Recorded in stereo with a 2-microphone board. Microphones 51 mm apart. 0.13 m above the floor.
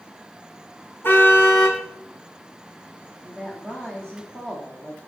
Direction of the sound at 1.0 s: 45° left (ahead or behind).